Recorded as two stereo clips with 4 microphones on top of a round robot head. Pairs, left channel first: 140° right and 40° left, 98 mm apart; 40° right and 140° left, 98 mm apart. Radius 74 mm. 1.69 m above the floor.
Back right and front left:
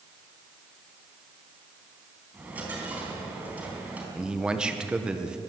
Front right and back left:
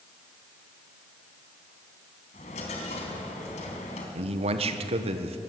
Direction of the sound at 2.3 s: 35° right.